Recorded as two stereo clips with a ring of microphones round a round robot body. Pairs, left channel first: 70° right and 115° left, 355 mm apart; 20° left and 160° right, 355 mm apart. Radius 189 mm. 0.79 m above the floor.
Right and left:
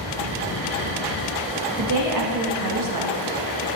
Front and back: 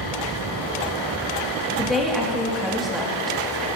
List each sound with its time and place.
1.8 s a woman speaking: 115° left, 1.5 m